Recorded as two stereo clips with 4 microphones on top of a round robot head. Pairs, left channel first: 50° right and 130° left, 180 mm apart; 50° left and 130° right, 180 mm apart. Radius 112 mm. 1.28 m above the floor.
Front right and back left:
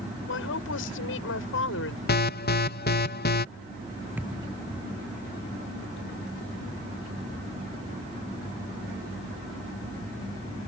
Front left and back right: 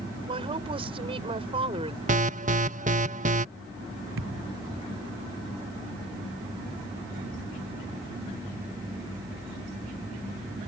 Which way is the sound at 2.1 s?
85° right.